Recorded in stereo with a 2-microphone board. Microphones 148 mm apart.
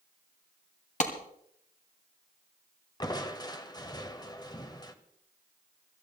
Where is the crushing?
30° left (ahead or behind), 1.2 m.